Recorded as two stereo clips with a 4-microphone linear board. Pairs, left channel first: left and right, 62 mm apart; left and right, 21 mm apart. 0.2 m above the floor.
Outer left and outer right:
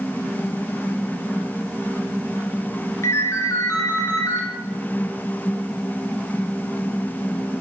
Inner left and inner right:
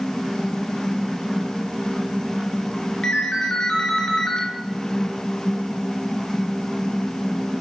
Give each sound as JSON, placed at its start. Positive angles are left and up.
{"t": 3.0, "sound": "a ringtone", "side_deg": 50, "distance_m": 2.5}